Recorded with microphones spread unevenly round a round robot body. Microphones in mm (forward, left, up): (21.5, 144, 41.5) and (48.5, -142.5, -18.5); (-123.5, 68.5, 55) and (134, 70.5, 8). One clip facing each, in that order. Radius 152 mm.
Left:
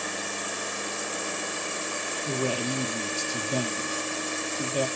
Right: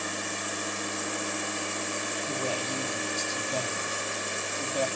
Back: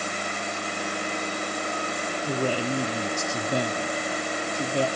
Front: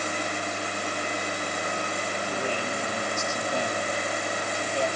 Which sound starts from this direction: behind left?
A man speaking, at 2.3 s.